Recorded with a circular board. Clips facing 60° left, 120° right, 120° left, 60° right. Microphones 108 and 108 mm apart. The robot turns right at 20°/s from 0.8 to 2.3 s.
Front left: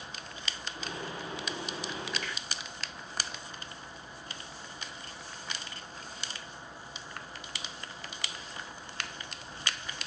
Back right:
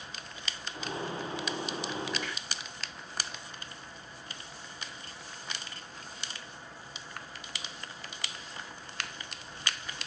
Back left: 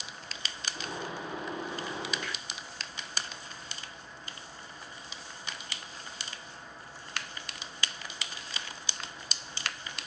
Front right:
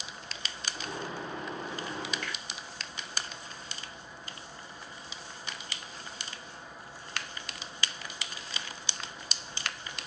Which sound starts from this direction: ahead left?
A finger snap, at 2.2 s.